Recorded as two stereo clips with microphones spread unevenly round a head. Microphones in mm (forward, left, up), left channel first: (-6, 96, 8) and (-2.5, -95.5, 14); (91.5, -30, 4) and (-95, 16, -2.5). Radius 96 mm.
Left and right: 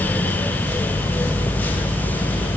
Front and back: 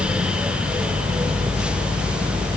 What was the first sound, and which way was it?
Only background noise.